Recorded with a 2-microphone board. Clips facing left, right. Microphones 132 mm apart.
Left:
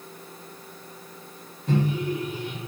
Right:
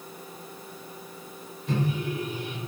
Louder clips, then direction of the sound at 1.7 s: Left 4 dB; 25° left (ahead or behind).